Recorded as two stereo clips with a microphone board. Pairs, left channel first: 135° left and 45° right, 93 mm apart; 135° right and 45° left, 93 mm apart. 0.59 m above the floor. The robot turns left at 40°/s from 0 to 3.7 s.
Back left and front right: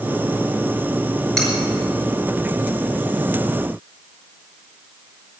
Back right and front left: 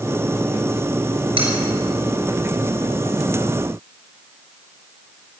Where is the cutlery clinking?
55° left, 5 m; by 1.5 s 45° left, 5 m.